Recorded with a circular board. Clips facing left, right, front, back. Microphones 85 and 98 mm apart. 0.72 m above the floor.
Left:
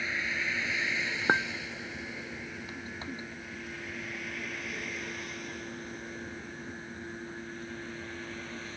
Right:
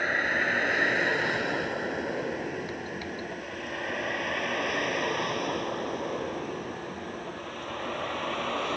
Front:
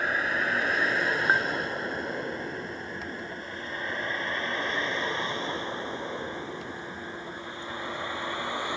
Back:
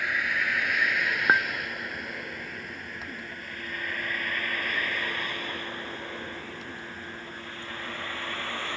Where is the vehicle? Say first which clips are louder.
Right 7 dB, front 2 dB; 55° right; by 8.8 s 75° right.